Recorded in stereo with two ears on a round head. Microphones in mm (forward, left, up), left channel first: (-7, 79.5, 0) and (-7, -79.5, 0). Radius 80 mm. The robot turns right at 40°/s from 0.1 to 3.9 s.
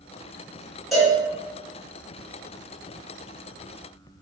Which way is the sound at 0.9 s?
Centre (ahead or behind).